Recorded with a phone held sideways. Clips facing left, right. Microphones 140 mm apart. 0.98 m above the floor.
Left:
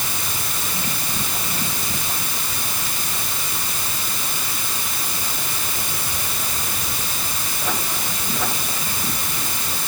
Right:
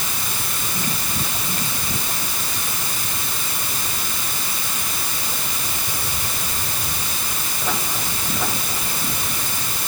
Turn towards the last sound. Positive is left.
No sound to turn to.